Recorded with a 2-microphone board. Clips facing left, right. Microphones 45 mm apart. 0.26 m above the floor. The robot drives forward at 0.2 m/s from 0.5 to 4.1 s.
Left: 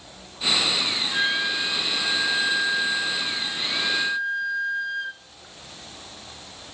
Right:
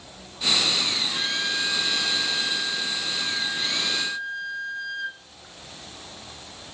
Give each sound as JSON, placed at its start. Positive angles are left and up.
{"t": 1.1, "sound": "a flute", "side_deg": 20, "distance_m": 1.9}